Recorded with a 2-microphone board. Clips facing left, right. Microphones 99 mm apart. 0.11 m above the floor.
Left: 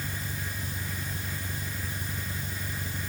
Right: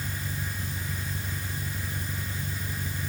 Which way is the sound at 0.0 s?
15° left (ahead or behind).